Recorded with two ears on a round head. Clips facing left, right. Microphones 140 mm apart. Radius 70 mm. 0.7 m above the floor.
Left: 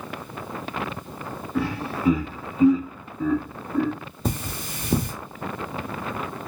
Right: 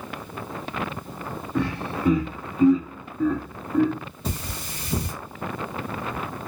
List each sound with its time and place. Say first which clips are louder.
1.6 s laughter: even; 5° left (ahead or behind), 1.2 m
4.2 s cutlery clinking: left 5 dB; 45° left (ahead or behind), 1.1 m